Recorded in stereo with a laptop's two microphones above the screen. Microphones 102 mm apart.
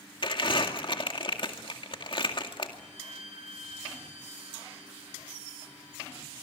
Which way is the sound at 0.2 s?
55° left (ahead or behind).